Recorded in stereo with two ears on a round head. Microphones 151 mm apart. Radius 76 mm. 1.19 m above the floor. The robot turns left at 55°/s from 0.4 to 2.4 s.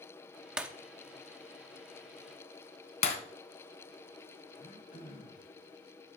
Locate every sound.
0.6 s breaking glass: 5° right (ahead or behind), 0.9 m; by 0.7 s 10° right (ahead or behind), 0.9 m
3.0 s breaking glass: 40° left (ahead or behind), 2.5 m
4.5 s throat clearing: 50° left (ahead or behind), 4 m